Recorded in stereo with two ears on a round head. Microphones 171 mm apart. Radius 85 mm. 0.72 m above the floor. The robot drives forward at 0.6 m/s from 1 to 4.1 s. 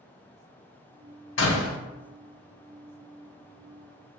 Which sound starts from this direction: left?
A door slam, at 1.4 s.